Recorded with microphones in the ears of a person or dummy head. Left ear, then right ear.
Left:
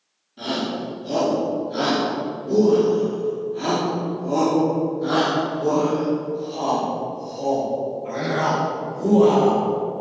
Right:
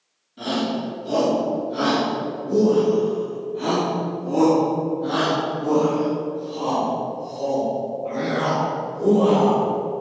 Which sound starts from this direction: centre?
A shout, at 0.4 s.